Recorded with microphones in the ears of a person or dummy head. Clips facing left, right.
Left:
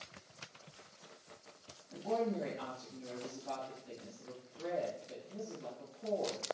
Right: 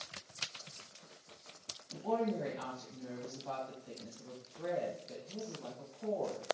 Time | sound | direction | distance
1.9 | a woman speaking | 65° right (ahead or behind) | 1.4 m